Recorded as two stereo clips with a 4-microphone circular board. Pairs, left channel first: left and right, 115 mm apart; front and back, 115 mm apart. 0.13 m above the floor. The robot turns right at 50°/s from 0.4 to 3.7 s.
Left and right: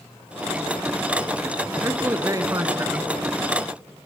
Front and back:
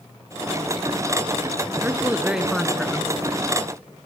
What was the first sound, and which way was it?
A man speaking, 130° right.